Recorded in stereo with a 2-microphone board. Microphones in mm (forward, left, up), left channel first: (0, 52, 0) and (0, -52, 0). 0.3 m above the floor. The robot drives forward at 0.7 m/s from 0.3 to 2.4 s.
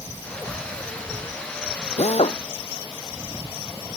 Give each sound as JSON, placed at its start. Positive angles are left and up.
{"t": 2.0, "sound": "a drill", "side_deg": 85}